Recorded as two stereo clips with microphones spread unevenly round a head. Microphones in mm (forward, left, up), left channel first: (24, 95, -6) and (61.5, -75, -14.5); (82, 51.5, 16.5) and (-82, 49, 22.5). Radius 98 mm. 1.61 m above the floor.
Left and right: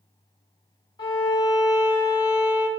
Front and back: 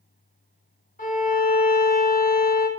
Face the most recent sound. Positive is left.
turn(degrees=40)